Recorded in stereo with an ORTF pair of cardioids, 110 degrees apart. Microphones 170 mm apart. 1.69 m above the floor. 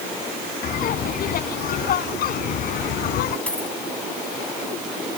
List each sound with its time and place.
0.6 s laughter: 60° left; by 3.4 s 70° left
3.5 s a dropped coin: 10° left